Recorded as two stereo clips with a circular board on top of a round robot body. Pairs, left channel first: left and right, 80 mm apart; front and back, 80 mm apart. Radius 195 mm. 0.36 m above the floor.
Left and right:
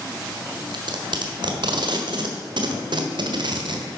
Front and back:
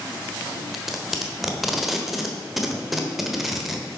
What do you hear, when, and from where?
0.7 s tape being pulled: 95° right, 1.4 m